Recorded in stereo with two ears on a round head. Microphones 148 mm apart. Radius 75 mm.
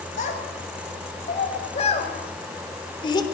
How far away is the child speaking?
About 7 m.